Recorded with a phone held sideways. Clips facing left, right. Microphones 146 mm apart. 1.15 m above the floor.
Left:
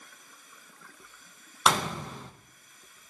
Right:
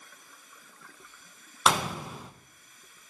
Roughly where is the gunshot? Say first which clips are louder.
Even; centre.